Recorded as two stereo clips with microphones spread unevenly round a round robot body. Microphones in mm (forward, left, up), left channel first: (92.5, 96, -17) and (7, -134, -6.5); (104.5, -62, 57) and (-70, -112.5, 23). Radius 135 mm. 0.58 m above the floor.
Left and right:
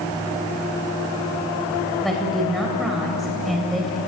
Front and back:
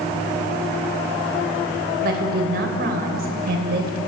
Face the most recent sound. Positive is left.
turn(degrees=160)